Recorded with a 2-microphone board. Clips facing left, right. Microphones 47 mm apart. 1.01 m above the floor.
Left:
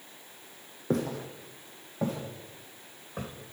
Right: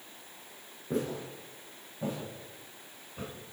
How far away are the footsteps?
About 2.5 m.